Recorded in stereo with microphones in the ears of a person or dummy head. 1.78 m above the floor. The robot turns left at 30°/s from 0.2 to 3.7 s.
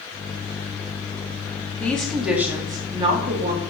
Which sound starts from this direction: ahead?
A woman speaking, at 1.8 s.